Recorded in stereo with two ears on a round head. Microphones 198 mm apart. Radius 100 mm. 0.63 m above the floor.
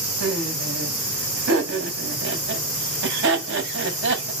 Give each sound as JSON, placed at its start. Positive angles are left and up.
{"t": 0.2, "sound": "laughter", "side_deg": -55, "distance_m": 3.5}